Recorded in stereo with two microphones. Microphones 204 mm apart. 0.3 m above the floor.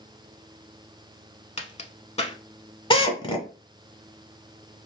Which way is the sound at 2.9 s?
25° left (ahead or behind).